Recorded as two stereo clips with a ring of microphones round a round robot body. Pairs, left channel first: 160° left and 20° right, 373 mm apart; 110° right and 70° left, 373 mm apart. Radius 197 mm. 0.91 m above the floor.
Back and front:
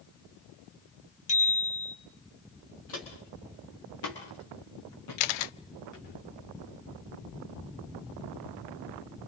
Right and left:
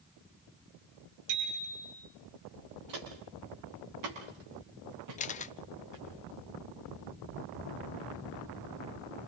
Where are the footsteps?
105° left, 6 m; by 6.1 s 110° left, 9 m.